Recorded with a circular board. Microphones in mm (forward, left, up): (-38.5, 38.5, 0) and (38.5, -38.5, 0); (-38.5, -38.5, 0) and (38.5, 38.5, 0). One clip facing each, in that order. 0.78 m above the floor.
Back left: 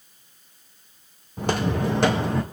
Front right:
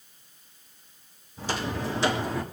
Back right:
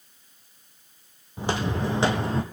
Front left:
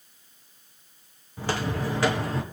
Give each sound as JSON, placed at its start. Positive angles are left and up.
{"t": 1.4, "sound": "footsteps", "azimuth_deg": 155, "distance_m": 1.7}